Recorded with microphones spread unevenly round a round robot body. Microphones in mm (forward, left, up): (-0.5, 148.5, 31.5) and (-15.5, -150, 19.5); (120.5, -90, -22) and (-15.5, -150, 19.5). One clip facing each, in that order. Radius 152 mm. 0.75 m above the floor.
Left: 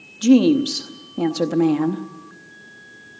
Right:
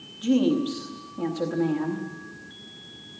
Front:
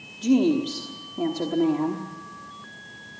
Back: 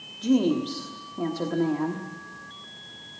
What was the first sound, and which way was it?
A woman speaking, 95° left.